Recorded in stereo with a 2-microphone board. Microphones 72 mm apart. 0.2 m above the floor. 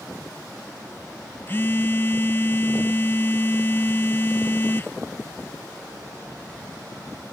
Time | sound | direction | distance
1.5 | a phone buzzing | 35° left (ahead or behind) | ?